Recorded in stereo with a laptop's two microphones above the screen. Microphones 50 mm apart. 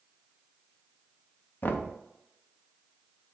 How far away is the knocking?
About 0.6 m.